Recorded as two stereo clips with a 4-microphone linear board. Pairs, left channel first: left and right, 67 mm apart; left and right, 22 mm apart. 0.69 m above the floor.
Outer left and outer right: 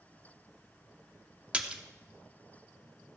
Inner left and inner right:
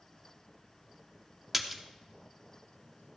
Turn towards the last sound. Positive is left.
turn(degrees=-15)  # may be behind; listen again after turning